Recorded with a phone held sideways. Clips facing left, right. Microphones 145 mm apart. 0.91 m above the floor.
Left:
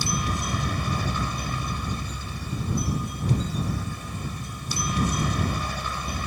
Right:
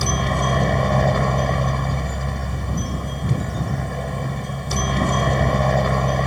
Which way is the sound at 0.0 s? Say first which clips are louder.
Right 7 dB; 60° right (ahead or behind).